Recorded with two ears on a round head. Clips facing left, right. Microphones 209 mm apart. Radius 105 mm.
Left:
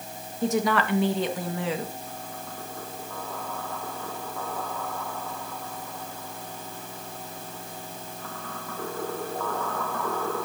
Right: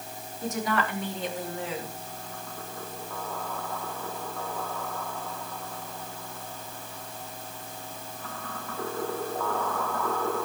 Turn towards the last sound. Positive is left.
turn(degrees=60)  # may be behind; listen again after turning